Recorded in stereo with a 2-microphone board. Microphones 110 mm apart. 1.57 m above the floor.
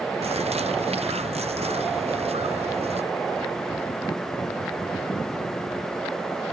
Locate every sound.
0.2 s a bird: 70° right (ahead or behind)